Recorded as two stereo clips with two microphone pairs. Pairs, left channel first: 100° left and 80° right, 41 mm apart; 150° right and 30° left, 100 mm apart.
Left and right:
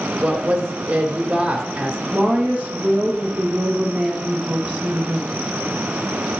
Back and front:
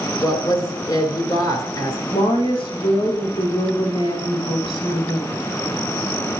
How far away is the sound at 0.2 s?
About 2.5 m.